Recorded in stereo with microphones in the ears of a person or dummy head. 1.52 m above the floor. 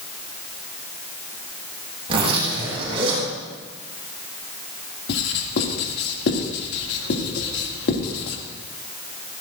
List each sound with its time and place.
2.1 s a zipper: 35° right (ahead or behind), 6.5 m
5.1 s writing: 60° left (ahead or behind), 2.5 m